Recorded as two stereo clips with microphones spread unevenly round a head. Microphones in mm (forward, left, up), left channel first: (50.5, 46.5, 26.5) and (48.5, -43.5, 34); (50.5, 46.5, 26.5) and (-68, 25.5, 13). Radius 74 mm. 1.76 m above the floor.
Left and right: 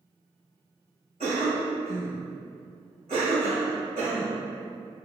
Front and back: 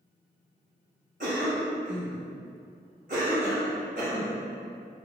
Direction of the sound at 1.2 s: 130° right.